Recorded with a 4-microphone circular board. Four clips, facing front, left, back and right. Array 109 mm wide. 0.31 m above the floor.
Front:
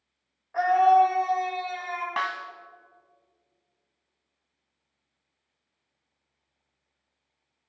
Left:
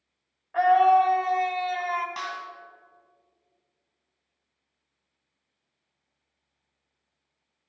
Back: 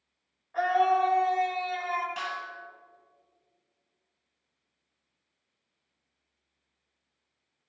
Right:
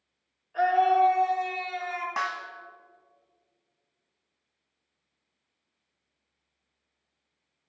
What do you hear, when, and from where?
0.5 s a scream: 65° left, 1.9 m; by 2.1 s 95° left, 1.8 m
2.2 s a snare drum: 25° right, 0.7 m